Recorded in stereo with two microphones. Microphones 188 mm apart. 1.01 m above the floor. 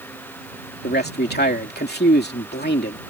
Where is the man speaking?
65° left (ahead or behind).